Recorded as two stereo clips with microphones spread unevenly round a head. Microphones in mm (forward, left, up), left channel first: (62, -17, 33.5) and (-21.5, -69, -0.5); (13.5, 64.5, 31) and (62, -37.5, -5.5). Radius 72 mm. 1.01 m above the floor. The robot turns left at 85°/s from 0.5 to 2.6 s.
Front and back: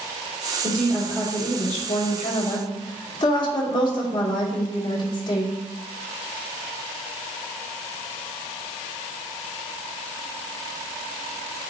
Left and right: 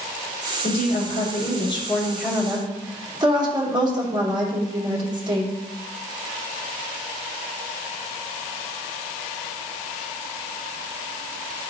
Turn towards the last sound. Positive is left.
turn(degrees=-15)